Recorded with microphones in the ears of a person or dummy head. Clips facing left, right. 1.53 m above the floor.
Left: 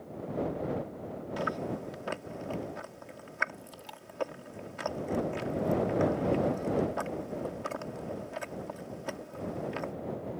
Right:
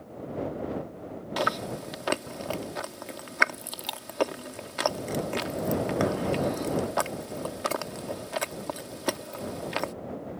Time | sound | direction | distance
1.4 | chewing | 75° right (ahead or behind) | ?